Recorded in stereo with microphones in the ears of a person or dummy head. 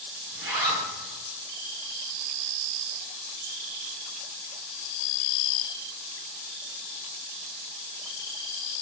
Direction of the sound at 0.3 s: 15° right (ahead or behind).